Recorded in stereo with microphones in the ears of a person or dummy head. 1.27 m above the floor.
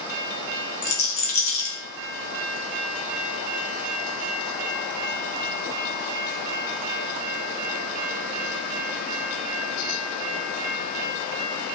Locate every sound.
0.8 s a rattle: 35° left (ahead or behind), 2 m